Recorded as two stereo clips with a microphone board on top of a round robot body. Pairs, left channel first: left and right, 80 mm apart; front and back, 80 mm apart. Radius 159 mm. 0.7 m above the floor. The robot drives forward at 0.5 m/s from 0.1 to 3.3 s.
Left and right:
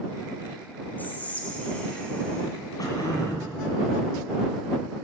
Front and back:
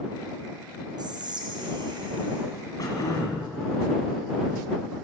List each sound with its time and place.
1.0 s whispering: 160° left, 1.0 m; by 2.4 s 170° left, 1.7 m
2.8 s throat clearing: 45° left, 1.9 m; by 3.5 s 55° left, 1.7 m